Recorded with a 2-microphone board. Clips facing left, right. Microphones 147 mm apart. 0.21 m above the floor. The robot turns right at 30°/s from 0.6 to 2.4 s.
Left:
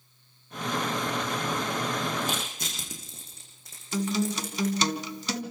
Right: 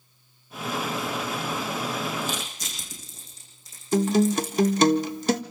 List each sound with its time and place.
2.2 s crushing: 60° left (ahead or behind), 8 m; by 4.8 s 65° left (ahead or behind), 8 m
3.9 s a guitar: 50° right (ahead or behind), 0.8 m